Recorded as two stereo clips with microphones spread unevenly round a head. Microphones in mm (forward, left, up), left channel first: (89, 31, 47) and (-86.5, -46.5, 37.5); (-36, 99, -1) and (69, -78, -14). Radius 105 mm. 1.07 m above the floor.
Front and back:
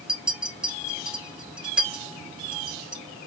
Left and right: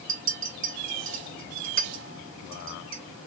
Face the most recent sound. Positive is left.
turn(degrees=-70)